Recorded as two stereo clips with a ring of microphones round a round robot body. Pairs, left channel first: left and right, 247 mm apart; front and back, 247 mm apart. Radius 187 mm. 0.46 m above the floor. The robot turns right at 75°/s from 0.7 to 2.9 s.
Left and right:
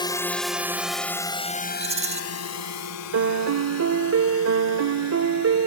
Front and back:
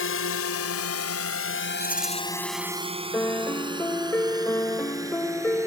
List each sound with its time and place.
0.0 s a drone: 20° left; by 5.7 s 100° left
1.8 s a rattle: 115° right; by 2.2 s 80° right
3.1 s a piano: 85° right